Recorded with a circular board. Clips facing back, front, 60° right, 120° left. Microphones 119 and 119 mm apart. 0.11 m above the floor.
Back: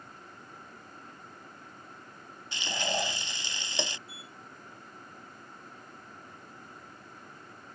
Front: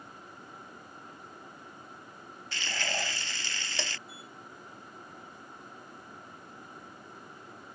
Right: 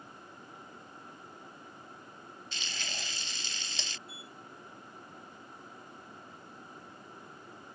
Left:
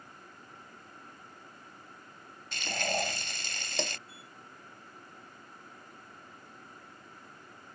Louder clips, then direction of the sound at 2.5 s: Back 4 dB, left 13 dB; 110° left.